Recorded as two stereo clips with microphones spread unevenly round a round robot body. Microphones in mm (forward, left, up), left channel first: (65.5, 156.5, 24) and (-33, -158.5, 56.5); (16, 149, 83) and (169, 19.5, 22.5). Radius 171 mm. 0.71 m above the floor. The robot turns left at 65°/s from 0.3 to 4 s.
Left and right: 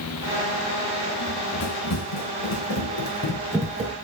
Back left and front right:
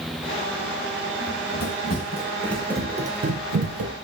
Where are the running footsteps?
155° left, 3.5 m; by 4.0 s 75° right, 0.9 m.